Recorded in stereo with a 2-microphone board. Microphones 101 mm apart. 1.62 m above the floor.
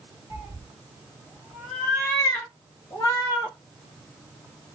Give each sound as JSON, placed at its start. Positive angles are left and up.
{"t": 0.3, "sound": "a cat meowing", "side_deg": -20, "distance_m": 1.1}